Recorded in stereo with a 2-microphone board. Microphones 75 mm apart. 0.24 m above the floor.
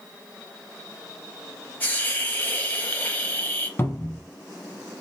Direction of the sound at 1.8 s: 25° left (ahead or behind).